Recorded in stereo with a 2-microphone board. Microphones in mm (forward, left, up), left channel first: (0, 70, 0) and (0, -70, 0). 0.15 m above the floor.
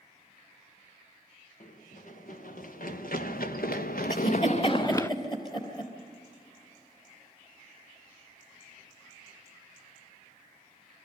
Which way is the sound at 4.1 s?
30° left (ahead or behind).